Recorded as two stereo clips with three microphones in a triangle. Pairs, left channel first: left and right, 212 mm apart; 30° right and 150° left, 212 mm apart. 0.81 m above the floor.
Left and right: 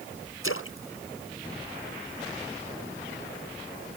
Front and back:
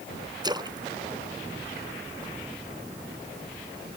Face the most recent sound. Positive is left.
turn(degrees=80)